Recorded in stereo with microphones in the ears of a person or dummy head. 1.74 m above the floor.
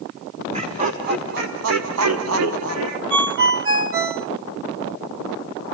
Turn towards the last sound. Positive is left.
turn(degrees=-60)  # may be behind; listen again after turning